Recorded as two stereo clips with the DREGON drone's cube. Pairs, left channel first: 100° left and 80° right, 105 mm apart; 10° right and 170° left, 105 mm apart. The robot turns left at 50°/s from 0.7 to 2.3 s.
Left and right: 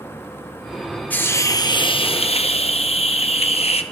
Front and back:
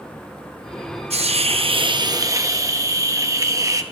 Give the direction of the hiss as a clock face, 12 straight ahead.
6 o'clock.